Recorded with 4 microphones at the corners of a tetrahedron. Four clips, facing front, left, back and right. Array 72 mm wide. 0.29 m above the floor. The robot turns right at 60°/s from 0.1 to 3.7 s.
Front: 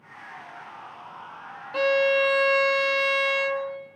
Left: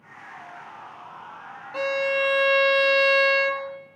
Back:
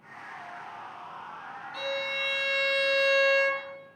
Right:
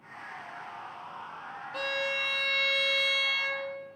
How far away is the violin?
About 0.5 m.